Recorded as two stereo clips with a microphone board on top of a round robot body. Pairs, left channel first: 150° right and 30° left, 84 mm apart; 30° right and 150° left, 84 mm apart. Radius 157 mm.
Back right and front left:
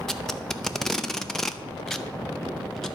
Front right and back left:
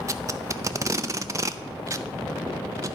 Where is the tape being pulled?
125° left, 0.8 m.